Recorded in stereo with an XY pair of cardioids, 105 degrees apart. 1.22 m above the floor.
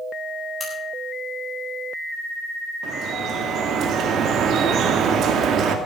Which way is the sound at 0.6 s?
25° left.